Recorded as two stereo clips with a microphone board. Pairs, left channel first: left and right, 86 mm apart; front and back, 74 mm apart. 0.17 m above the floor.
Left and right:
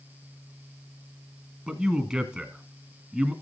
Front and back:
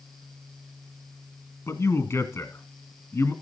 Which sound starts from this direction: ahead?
A man speaking, at 1.7 s.